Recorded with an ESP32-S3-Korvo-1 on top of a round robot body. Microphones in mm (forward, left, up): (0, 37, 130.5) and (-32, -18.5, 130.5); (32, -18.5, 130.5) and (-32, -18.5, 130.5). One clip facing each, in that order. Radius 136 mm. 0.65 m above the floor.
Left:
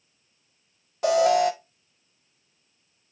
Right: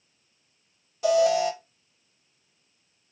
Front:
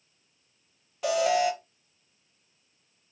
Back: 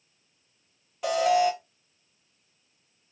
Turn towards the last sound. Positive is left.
turn(degrees=90)